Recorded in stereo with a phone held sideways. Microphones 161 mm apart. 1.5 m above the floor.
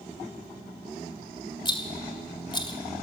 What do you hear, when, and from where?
1.6 s a rattle: 30° left (ahead or behind), 2 m